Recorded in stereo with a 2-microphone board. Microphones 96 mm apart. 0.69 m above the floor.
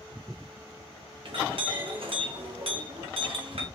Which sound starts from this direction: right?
A clink, at 1.2 s.